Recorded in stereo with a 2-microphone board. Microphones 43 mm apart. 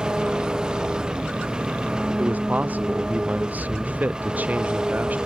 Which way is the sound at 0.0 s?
20° right (ahead or behind).